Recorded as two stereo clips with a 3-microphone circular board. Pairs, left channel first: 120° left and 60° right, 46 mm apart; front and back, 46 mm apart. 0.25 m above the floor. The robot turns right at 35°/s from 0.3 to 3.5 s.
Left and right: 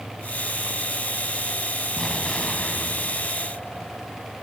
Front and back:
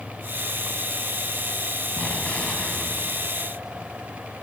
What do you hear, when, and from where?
2.0 s an explosion: 45° left, 2 m; by 4.3 s 95° left, 2 m